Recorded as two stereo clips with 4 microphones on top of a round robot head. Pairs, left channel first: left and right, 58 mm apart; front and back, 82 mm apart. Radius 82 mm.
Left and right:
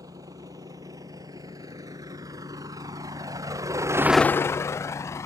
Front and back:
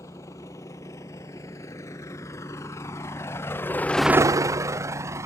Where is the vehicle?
60° right; by 5.3 s 125° left.